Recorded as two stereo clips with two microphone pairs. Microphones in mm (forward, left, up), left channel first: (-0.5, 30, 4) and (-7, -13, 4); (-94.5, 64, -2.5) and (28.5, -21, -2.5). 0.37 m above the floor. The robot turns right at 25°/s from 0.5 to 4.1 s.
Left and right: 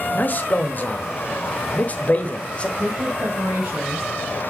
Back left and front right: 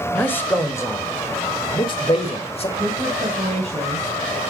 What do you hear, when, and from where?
0.1 s a man speaking: 80° left, 1.1 m; by 2.7 s 135° left, 1.1 m
2.8 s a woman speaking: 80° right, 2 m; by 4.1 s 50° right, 2 m